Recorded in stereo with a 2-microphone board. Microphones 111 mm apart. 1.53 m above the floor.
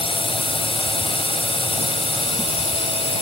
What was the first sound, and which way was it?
A drone, 55° left (ahead or behind).